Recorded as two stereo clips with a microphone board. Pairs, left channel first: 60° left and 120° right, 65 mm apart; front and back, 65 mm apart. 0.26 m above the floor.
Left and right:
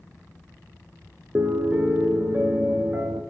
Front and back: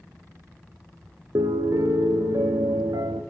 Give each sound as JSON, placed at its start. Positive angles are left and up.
{"t": 1.4, "sound": "a piano", "azimuth_deg": 180, "distance_m": 0.5}